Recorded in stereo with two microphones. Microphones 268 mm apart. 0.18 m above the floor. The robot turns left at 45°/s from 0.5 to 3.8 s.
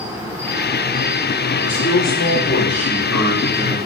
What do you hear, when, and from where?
0.0 s an insect: 10° right, 2 m; by 3.9 s 160° right, 2 m
1.6 s a man speaking: 115° left, 4 m; by 3.8 s 15° left, 4 m